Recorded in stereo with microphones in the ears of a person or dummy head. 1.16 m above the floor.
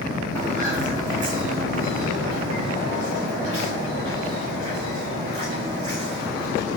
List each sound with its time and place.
0.3 s footsteps: 15° right (ahead or behind), 2.5 m; by 6.8 s 30° right (ahead or behind), 5.5 m